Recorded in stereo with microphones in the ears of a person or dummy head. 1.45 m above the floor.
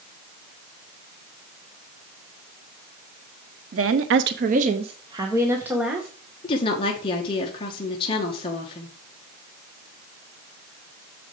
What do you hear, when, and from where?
3.7 s a woman speaking: 70° right (ahead or behind), 0.9 m; by 6.1 s 5° right (ahead or behind), 1.7 m
6.4 s a woman speaking: 30° left (ahead or behind), 1.3 m